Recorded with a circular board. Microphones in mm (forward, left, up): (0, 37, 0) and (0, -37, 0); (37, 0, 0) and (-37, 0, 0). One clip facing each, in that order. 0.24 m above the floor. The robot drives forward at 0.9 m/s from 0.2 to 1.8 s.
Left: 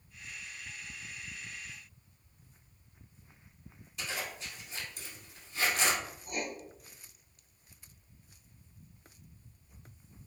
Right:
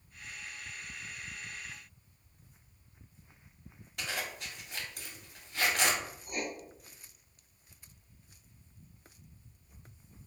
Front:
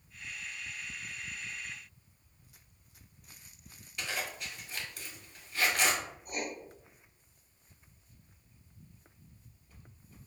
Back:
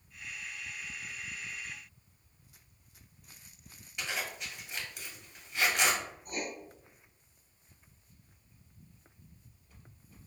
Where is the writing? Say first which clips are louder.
Even, front 1 dB; 175° right, 1.9 m.